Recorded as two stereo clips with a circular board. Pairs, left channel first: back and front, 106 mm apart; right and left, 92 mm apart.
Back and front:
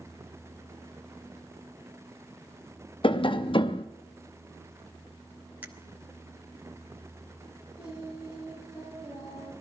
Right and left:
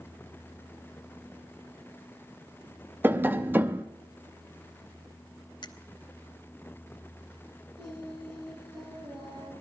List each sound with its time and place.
3.0 s tapping: 155° left, 0.7 m
5.6 s a finger snap: 70° right, 1.0 m
7.8 s singing: 120° left, 7.5 m